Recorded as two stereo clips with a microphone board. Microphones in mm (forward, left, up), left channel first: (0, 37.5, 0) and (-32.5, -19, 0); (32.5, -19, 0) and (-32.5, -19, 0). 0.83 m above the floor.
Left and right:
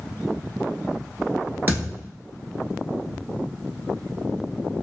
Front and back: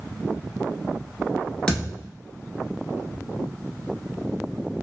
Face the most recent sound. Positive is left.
turn(degrees=-75)